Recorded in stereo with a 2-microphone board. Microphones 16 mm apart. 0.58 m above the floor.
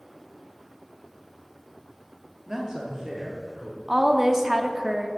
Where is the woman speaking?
30° right (ahead or behind), 0.7 m.